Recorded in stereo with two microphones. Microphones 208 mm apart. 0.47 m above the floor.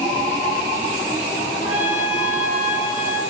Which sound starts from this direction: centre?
A trumpet, at 1.6 s.